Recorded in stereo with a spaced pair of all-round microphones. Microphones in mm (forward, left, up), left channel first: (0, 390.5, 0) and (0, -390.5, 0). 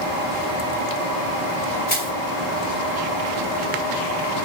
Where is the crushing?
45° left (ahead or behind), 4.5 m.